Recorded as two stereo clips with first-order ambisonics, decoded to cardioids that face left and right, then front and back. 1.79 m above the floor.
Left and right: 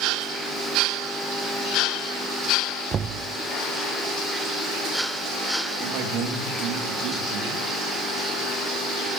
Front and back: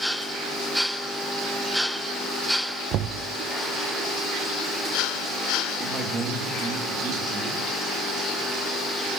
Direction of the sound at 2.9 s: 150° right.